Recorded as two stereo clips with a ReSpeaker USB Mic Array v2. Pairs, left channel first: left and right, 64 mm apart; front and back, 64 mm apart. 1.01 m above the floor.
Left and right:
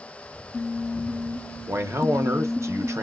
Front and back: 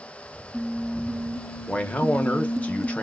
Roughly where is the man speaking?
Ahead right.